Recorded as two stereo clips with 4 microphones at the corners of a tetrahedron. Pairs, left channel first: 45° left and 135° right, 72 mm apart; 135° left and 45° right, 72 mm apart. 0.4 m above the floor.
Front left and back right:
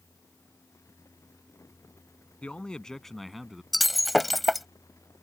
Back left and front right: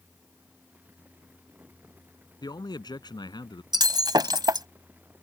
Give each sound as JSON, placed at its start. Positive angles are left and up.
{"t": 2.4, "sound": "a man speaking", "azimuth_deg": 120}
{"t": 3.7, "sound": "breaking glass", "azimuth_deg": -45}